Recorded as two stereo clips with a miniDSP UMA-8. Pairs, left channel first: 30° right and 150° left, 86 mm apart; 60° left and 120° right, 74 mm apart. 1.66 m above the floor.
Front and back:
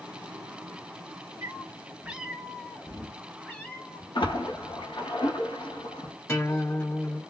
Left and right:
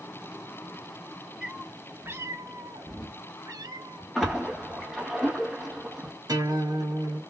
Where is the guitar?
90° right, 2.5 m.